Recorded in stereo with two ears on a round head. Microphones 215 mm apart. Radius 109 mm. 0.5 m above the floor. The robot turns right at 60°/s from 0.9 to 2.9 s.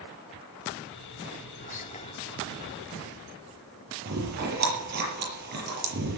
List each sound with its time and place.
1.6 s whispering: 105° left, 0.8 m; by 2.1 s 140° left, 0.8 m
4.0 s chewing: 40° right (ahead or behind), 6.5 m